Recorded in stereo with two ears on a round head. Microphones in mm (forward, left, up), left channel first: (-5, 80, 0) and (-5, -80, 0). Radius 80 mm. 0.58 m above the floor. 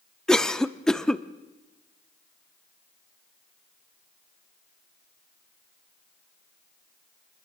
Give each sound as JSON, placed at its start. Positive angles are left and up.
{"t": 0.3, "sound": "a cough", "side_deg": 5, "distance_m": 0.7}